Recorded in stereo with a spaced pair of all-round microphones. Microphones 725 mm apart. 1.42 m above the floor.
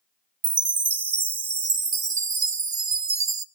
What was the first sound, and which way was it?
A chime, 40° right (ahead or behind).